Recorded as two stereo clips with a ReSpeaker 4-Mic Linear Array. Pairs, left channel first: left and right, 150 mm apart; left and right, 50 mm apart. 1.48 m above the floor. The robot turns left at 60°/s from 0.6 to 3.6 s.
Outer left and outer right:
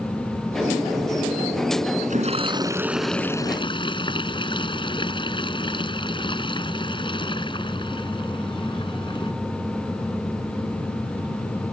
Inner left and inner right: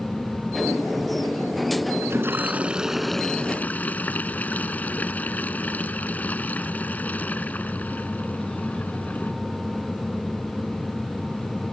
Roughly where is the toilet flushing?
Behind right.